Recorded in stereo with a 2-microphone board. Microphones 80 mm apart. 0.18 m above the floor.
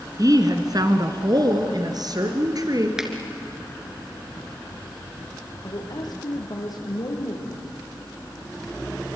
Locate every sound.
0.2 s a woman speaking: 50° right (ahead or behind), 2 m
3.0 s a finger snap: 5° right (ahead or behind), 3 m
5.6 s a woman speaking: 55° left (ahead or behind), 6 m